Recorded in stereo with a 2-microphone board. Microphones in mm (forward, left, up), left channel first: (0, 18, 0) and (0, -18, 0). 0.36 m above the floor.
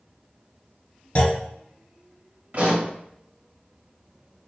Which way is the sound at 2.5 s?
50° right (ahead or behind).